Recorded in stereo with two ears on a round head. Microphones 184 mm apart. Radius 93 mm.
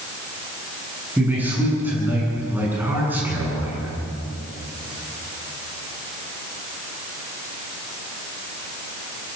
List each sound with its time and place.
1.2 s a man speaking: 10° right (ahead or behind), 9.5 m